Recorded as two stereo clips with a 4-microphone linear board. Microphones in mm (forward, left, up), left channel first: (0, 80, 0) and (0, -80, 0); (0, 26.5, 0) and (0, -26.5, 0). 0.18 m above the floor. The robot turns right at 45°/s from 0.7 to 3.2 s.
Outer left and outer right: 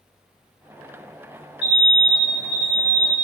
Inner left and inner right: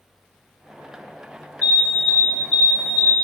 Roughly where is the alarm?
Left.